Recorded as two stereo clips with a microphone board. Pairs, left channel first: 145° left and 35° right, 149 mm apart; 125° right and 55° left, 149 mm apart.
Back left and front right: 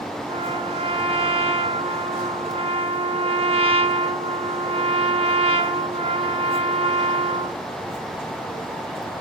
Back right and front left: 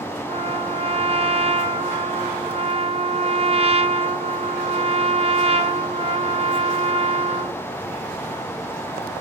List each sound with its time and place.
0.3 s a trumpet: 10° left, 0.6 m